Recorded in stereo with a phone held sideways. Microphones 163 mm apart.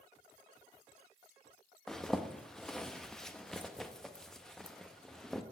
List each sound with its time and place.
1.9 s a zipper: 5° left (ahead or behind), 0.5 m